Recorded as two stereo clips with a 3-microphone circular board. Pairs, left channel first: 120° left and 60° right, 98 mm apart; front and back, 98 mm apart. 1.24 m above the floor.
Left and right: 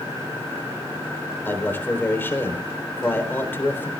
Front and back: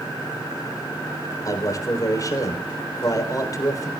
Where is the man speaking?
50° left, 4 m.